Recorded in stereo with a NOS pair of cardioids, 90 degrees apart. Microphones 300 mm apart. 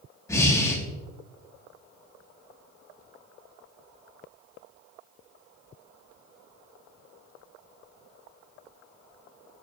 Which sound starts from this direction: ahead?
Breathing, at 0.3 s.